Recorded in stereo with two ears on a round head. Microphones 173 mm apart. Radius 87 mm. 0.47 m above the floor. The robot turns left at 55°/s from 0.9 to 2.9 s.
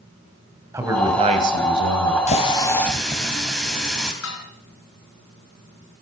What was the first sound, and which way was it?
A man speaking, 15° right.